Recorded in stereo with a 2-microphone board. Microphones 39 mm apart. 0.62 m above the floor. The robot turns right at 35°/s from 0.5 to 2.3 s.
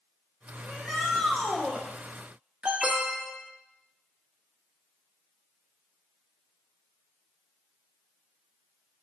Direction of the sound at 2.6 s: 30° right (ahead or behind).